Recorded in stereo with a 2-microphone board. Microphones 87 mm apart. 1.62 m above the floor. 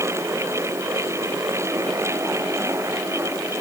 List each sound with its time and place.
Only background noise.